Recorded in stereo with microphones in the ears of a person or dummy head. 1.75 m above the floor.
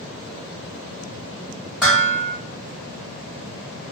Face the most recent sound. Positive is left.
turn(degrees=5)  # may be behind; listen again after turning